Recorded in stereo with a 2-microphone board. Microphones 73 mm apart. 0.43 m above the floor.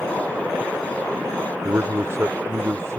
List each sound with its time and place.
1.6 s a man speaking: 40° right (ahead or behind)